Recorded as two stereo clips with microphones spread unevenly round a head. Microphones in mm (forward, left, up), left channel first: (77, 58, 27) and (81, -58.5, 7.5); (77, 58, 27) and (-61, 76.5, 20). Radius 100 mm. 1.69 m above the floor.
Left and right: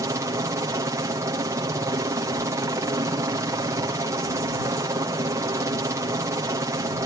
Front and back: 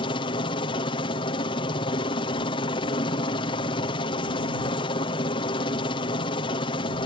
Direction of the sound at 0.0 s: 50° right.